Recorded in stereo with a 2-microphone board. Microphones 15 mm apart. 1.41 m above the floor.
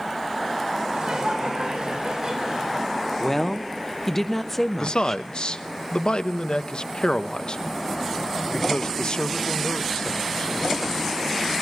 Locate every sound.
0.9 s laughter: 70° right (ahead or behind), 4 m; by 2.9 s 60° right (ahead or behind), 6 m
3.2 s a woman speaking: 10° left (ahead or behind), 1.0 m
4.8 s a man speaking: 70° left (ahead or behind), 0.9 m